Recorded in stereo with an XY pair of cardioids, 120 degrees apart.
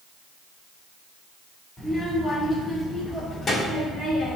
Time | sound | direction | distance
1.8 | a child speaking | 20° left | 2.5 m